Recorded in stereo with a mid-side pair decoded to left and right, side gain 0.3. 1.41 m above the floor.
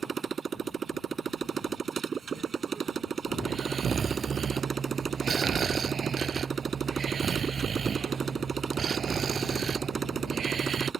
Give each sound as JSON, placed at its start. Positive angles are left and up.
{"t": 0.0, "sound": "a motorcycle", "azimuth_deg": -65}
{"t": 3.4, "sound": "snoring", "azimuth_deg": -65}